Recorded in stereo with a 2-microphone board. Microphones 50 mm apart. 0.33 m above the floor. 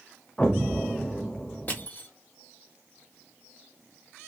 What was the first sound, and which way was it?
An explosion, 20° left (ahead or behind).